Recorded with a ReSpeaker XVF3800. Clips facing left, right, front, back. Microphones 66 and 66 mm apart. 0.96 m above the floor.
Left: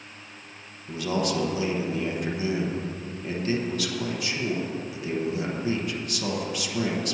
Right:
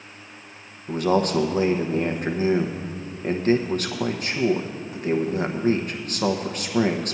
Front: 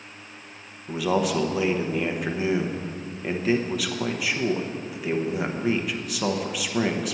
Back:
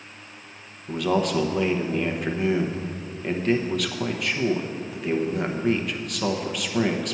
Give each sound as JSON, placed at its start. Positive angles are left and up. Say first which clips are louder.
{"t": 0.9, "sound": "a man speaking", "louder": "right 6 dB, even", "azimuth_deg": -85, "distance_m": 0.9}